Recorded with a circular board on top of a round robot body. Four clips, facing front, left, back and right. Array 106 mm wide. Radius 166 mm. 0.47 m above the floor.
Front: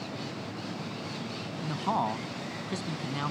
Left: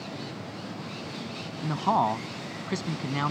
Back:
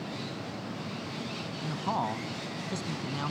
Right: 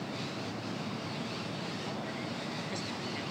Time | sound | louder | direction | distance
1.6 | a man speaking | left 14 dB, front 2 dB | 80° left | ?